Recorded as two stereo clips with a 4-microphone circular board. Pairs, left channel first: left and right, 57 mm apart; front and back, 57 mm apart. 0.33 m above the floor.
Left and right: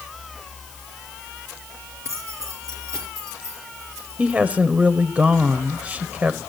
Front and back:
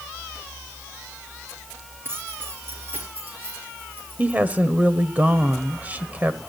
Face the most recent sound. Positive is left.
turn(degrees=-135)